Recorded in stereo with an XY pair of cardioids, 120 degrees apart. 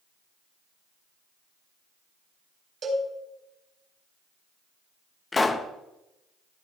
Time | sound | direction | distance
2.8 | a cowbell | 45° right | 3.5 m
5.3 | a pop | 20° left | 0.8 m